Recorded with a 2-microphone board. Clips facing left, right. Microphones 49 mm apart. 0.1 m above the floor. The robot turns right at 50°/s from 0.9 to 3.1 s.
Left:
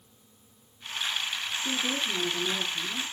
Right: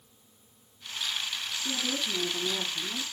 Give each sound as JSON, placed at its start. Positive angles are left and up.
{"t": 1.6, "sound": "a woman speaking", "azimuth_deg": 175, "distance_m": 2.0}